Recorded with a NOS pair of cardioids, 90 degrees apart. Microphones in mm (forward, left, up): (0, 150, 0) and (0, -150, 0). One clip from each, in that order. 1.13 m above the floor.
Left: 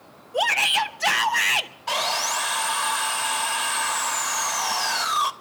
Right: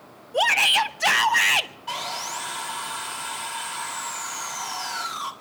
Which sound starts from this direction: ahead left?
Sawing, at 1.9 s.